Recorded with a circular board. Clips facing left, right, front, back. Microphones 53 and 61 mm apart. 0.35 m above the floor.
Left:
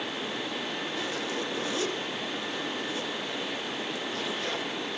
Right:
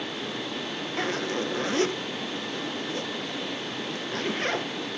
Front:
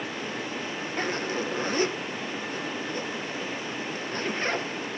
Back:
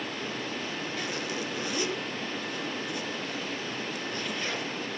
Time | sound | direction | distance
1.0 | a zipper | 50° right | 1.3 m